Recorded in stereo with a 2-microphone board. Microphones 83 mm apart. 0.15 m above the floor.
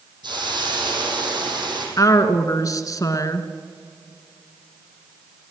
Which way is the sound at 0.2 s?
65° right (ahead or behind).